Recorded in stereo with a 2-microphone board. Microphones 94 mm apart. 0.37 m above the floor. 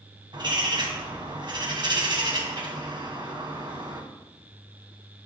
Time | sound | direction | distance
0.3 | a bird | 55° right (ahead or behind) | 2.5 m